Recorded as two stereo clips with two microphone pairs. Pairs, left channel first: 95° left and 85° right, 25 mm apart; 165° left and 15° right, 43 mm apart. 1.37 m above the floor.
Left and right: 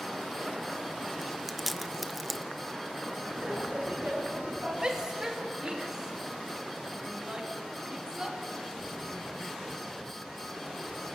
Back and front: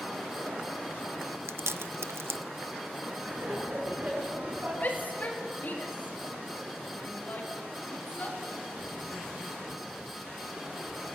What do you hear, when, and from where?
1.2 s chewing: straight ahead, 0.6 m
3.2 s laughter: 50° right, 10 m
4.8 s a shout: 150° right, 3 m